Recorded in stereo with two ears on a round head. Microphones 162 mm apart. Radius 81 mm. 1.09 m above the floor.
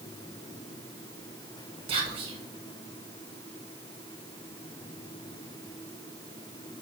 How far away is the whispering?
About 1.5 m.